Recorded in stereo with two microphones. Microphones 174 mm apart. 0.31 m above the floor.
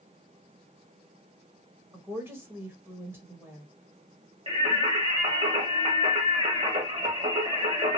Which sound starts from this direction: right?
Singing, at 4.5 s.